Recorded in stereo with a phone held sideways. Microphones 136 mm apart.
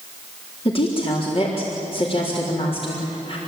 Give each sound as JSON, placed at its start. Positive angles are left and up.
{"t": 0.7, "sound": "a woman speaking", "side_deg": 45, "distance_m": 3.5}